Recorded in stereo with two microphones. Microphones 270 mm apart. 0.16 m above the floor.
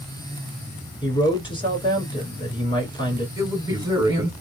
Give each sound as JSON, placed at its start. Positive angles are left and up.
{"t": 1.0, "sound": "a man speaking", "side_deg": 20, "distance_m": 2.0}
{"t": 3.4, "sound": "a man speaking", "side_deg": -10, "distance_m": 1.7}